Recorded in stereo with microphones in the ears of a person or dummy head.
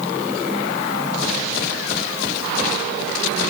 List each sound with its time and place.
Only background noise.